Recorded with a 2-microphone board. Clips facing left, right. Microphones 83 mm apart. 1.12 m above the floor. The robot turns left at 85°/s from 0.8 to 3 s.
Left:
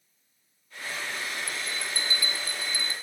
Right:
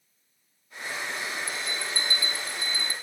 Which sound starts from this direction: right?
A bell, at 1.5 s.